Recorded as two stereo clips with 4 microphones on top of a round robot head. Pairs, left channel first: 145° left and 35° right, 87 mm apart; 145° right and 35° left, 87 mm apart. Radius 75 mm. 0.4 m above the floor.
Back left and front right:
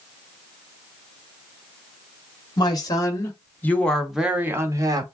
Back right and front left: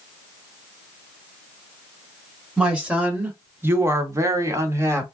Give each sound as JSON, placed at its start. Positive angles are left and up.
{"t": 2.6, "sound": "a woman speaking", "azimuth_deg": 110, "distance_m": 1.7}